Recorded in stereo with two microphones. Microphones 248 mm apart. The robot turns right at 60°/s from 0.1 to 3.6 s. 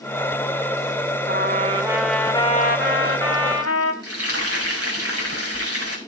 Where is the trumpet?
50° right, 2 m; by 3.9 s 90° left, 2 m.